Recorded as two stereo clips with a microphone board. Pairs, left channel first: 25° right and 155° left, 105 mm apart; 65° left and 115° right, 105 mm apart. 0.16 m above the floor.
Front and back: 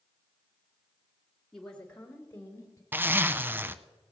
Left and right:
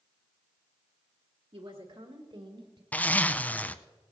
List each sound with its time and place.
1.5 s a woman speaking: 110° right, 2.5 m; by 2.8 s 80° right, 2.5 m
2.9 s a zipper: 120° left, 0.5 m